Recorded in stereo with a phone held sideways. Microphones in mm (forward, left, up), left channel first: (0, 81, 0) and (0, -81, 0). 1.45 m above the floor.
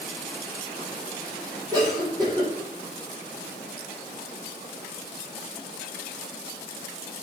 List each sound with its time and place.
1.7 s a cough: 25° right (ahead or behind), 6 m